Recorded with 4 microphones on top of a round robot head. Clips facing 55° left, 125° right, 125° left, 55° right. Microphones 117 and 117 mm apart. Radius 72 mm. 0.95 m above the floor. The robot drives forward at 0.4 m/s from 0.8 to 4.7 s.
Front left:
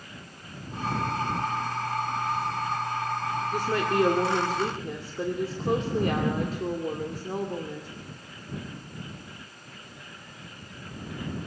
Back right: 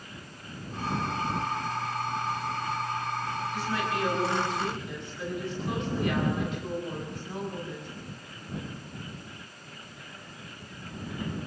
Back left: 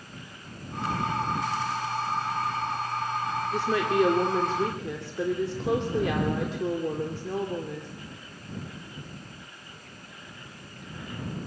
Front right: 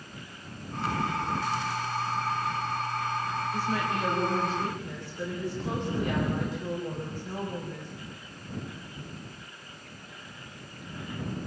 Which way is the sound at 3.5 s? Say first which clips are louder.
Front left 7 dB, back left 8 dB; 100° left.